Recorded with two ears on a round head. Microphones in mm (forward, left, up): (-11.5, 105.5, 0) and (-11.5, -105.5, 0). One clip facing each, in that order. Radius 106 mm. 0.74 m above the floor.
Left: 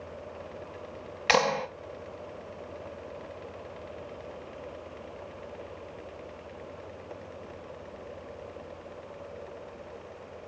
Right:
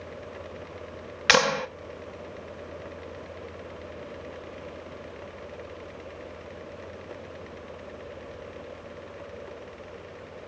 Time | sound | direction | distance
1.3 | a clap | 20° right (ahead or behind) | 0.6 m